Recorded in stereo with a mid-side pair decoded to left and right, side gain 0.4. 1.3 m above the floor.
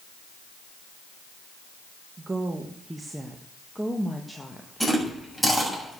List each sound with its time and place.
2.2 s a woman speaking: 35° right, 1.8 m; by 5.8 s 25° left, 2.5 m
4.8 s chewing: 5° left, 7 m